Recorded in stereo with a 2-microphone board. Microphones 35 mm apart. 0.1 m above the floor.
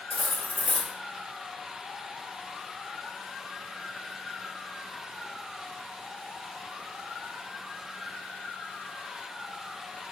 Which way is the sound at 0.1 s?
30° left (ahead or behind).